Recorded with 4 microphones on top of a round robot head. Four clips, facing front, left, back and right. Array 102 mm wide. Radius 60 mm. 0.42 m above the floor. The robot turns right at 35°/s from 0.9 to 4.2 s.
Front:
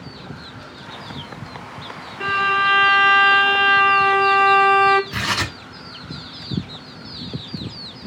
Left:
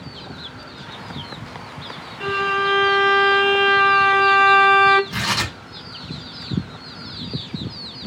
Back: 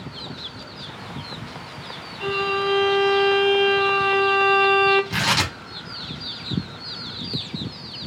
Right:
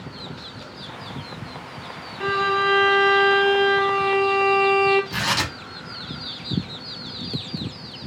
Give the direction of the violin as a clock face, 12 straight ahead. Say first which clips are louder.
Even, front 5 dB; 1 o'clock.